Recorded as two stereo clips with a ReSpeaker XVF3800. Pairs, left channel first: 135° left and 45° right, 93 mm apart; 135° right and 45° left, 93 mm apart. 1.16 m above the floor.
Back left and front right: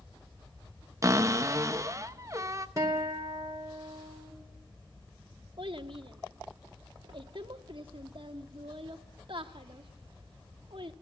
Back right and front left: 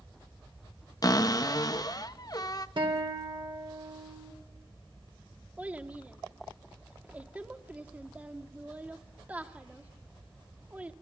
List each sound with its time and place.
1.0 s a cupboard door: 95° right, 0.6 m
2.8 s a guitar: 10° left, 2.0 m
5.6 s a child speaking: 30° right, 1.2 m